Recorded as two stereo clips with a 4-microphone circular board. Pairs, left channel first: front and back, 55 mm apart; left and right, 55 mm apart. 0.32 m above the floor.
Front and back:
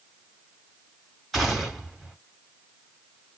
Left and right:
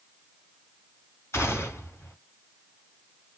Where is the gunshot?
95° left, 1.9 m.